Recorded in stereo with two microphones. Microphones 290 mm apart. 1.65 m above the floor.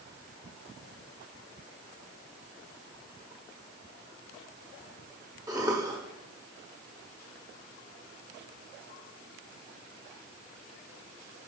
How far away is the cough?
About 0.9 m.